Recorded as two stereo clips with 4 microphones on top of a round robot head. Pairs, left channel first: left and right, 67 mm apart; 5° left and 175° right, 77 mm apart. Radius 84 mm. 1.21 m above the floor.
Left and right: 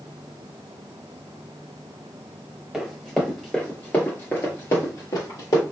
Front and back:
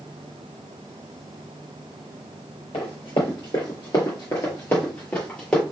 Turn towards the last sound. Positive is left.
turn(degrees=80)